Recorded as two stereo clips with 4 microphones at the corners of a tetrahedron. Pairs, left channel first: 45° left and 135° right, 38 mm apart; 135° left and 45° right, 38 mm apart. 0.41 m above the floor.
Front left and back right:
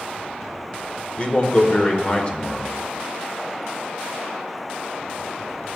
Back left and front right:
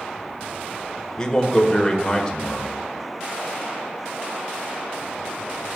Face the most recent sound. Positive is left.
turn(degrees=75)